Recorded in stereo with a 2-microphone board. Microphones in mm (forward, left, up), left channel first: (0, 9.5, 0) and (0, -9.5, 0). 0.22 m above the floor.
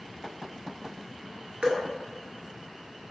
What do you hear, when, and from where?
1.6 s dripping: 75° right (ahead or behind), 0.7 m